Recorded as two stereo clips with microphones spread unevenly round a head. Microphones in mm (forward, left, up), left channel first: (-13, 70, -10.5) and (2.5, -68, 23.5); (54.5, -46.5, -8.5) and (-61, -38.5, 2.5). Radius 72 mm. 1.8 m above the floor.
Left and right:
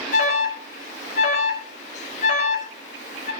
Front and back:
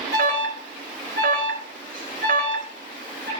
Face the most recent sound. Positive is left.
turn(degrees=140)